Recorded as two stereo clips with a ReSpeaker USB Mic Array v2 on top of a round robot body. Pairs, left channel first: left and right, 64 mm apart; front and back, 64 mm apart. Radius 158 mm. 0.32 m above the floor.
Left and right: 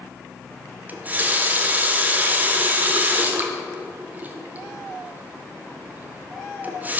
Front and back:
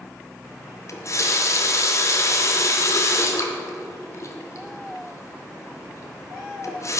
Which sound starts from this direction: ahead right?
A running tap, at 0.9 s.